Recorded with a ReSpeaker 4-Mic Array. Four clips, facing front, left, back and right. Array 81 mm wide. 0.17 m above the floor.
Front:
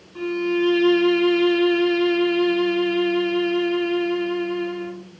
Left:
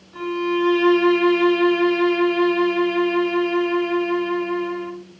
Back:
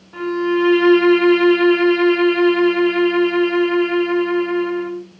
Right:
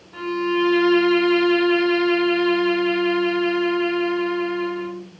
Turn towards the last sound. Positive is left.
turn(degrees=-165)